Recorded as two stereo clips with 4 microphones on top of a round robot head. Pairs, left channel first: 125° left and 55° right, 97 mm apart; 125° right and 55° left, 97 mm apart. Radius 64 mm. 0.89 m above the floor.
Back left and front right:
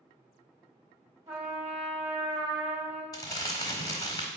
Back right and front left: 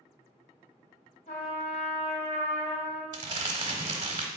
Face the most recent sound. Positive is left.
turn(degrees=85)